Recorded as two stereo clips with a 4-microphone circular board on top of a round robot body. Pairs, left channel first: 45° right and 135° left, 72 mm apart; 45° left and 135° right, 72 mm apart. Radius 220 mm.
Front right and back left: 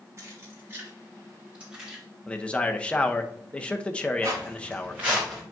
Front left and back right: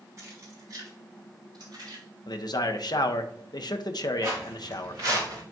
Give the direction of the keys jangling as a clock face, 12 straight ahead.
6 o'clock.